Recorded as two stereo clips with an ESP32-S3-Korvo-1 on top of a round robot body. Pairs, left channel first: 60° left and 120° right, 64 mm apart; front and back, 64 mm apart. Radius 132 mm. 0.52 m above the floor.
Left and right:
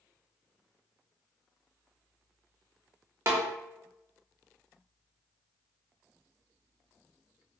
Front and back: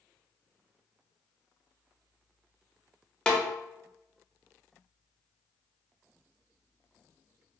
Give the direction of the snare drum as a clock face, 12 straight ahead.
3 o'clock.